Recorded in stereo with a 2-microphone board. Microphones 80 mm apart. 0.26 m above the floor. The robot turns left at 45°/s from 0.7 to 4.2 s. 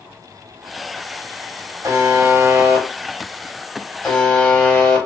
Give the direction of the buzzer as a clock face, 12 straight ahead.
3 o'clock.